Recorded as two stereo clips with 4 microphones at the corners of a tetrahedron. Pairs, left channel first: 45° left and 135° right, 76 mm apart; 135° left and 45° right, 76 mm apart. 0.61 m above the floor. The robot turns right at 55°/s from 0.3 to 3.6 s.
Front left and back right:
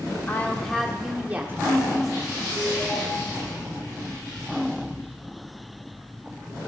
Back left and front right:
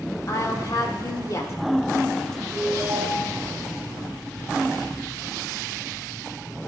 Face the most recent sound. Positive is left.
turn(degrees=20)